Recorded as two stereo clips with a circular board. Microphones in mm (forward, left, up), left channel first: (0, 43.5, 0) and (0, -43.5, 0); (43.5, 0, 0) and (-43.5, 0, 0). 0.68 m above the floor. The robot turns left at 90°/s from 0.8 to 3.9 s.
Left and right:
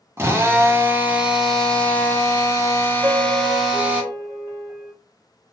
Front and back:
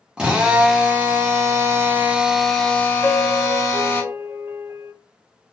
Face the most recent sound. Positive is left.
turn(degrees=-120)